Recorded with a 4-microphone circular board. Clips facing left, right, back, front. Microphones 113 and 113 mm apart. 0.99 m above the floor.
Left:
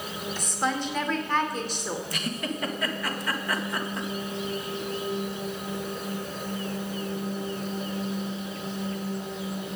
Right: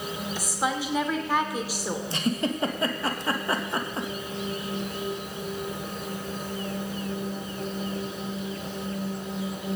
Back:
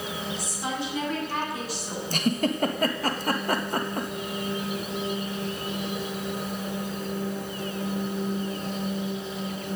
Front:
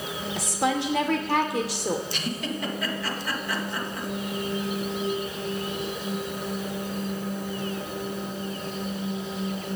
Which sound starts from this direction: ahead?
A woman speaking, at 0.4 s.